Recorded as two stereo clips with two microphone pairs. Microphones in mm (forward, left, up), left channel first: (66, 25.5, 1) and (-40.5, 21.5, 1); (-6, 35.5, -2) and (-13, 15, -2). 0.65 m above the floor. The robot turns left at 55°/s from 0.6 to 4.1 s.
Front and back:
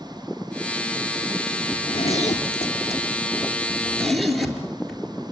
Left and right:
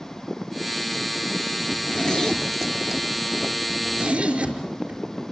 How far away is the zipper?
About 4 m.